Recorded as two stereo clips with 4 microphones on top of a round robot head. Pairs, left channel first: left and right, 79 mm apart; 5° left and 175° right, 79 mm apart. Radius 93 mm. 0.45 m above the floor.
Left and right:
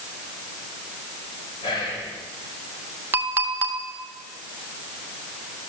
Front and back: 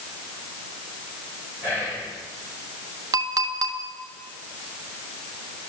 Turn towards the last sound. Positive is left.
turn(degrees=-150)